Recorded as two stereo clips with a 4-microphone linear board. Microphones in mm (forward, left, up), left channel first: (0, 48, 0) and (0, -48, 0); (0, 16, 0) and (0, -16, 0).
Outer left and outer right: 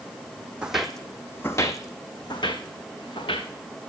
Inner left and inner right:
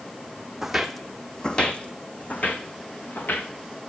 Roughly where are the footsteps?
Centre.